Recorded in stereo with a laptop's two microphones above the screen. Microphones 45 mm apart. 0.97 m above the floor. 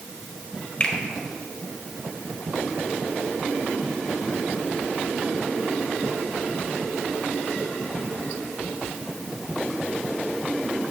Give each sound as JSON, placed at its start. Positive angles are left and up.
{"t": 0.8, "sound": "a finger snap", "side_deg": 25, "distance_m": 1.4}